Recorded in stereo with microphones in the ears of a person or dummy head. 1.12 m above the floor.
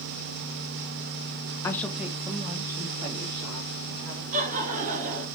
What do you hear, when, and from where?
1.6 s a woman speaking: 15° left (ahead or behind), 1.0 m; by 4.2 s 30° right (ahead or behind), 4.5 m
4.3 s laughter: 45° right (ahead or behind), 2 m